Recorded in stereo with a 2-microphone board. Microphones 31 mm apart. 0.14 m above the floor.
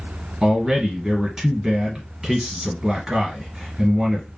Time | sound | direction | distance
0.4 | a man speaking | 15° right (ahead or behind) | 1.8 m